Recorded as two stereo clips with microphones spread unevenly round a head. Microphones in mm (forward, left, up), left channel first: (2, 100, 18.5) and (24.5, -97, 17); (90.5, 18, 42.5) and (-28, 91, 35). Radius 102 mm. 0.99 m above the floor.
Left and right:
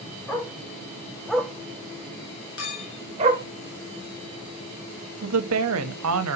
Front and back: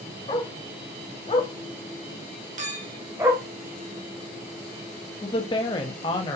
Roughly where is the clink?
Behind left.